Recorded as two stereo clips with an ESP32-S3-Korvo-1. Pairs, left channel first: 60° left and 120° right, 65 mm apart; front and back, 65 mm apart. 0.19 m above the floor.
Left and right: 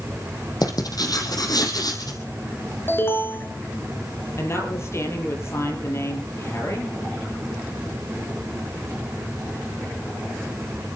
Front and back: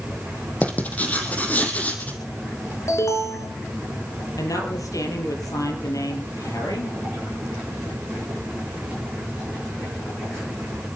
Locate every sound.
0.6 s writing: 65° left, 3.5 m
2.9 s an alarm: 15° left, 2 m
4.4 s a woman speaking: 20° left, 6 m